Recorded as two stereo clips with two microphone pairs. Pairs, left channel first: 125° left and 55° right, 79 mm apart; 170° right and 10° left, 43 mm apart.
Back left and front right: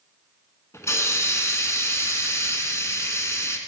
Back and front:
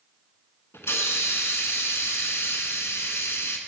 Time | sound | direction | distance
0.7 | a hiss | straight behind | 1.4 m